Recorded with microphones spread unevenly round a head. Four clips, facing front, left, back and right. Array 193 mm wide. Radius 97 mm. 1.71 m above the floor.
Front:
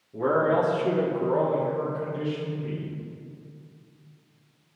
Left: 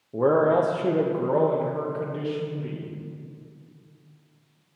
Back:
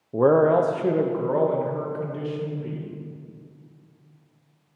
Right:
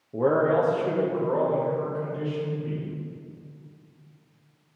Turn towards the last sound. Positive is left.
turn(degrees=115)